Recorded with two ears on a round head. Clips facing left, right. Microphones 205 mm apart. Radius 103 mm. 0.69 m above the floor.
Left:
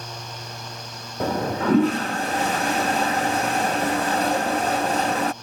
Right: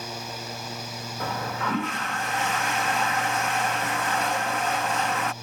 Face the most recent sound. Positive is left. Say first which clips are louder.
# left 8 dB
turn(degrees=30)  # may be behind; listen again after turning